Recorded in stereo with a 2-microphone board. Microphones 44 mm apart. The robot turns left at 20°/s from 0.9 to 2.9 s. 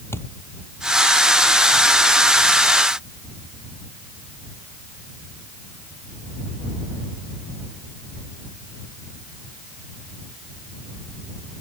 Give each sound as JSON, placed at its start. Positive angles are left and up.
{"t": 0.1, "sound": "a thud", "side_deg": 70}